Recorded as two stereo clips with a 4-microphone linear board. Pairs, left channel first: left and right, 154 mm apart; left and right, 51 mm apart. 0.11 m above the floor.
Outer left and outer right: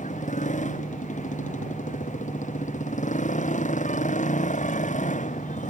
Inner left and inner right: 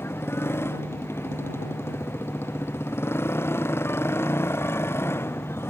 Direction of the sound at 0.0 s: 55° left (ahead or behind).